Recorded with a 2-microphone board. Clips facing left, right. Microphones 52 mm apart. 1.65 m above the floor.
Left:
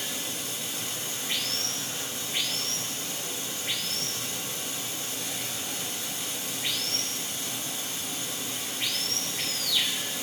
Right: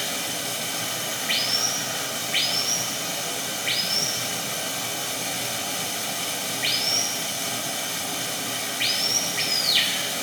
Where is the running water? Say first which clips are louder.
Right 6 dB; 70° right (ahead or behind), 1.0 m.